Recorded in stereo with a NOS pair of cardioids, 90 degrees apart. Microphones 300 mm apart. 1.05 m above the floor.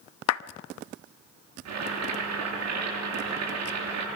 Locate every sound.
0.3 s a clap: 60° left, 0.8 m
1.6 s boiling: 60° right, 9.5 m